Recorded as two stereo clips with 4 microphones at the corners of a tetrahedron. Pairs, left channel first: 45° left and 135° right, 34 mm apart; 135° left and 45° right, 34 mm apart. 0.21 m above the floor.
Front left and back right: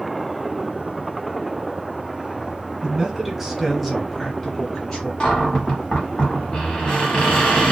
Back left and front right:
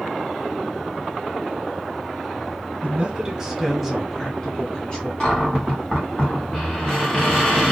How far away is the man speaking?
About 1.1 m.